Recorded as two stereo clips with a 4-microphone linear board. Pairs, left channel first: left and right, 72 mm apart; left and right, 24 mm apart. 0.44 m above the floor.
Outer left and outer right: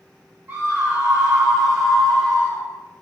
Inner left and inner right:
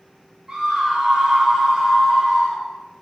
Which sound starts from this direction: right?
A scream, at 0.5 s.